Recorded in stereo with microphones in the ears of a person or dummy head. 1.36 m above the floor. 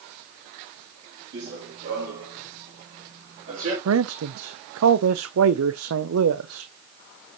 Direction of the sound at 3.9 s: 80° right.